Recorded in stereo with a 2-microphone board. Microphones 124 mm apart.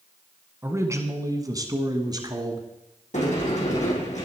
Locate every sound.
0.6 s a man speaking: 20° right (ahead or behind), 1.5 m; by 2.7 s 35° right (ahead or behind), 1.8 m
3.1 s a sliding door: 75° left (ahead or behind), 4.5 m